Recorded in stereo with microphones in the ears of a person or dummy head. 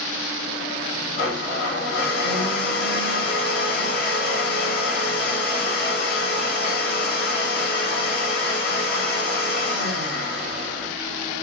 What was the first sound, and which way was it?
A blender, 60° left (ahead or behind).